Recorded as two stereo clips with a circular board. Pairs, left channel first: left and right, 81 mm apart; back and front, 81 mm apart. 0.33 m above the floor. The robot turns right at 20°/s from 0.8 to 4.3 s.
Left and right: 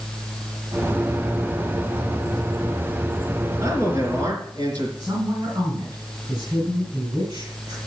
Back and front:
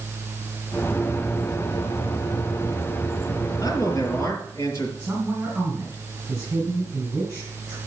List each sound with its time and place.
3.6 s a man speaking: 135° right, 4 m; by 4.9 s 125° right, 4 m
5.0 s a woman speaking: 65° right, 3.5 m